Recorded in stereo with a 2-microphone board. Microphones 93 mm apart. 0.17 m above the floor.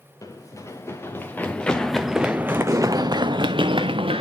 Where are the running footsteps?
35° left (ahead or behind), 1.5 m; by 4.2 s 80° right, 1.1 m.